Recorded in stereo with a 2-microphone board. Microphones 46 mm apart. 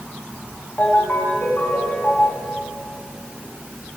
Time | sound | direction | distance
0.8 | a ringtone | 45° left (ahead or behind) | 9.5 m